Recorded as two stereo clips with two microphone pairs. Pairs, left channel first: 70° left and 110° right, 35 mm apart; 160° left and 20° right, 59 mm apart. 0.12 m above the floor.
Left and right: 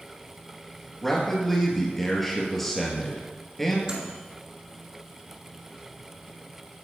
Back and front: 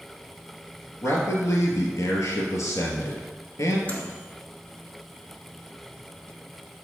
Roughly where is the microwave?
Behind right.